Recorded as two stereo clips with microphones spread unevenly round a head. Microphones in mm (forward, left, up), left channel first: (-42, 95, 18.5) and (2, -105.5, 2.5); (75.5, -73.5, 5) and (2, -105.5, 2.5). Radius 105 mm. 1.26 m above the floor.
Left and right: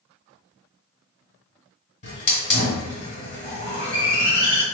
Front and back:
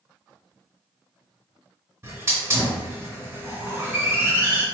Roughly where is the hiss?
Behind left.